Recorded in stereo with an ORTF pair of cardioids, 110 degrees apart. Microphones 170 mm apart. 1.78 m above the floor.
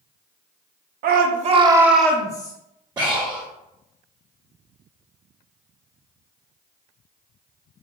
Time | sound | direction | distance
1.0 | a shout | 65° right | 0.9 m
3.0 | breathing | 25° right | 1.3 m